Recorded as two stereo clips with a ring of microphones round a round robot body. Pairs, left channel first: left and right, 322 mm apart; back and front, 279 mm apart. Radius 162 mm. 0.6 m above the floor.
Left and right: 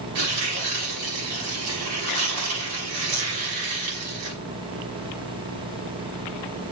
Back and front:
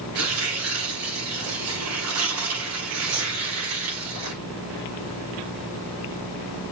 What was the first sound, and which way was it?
Tearing paper, 45° right.